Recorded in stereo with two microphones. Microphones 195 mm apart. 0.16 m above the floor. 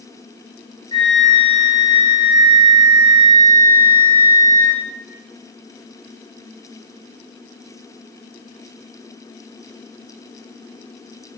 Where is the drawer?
No drawer in this recording.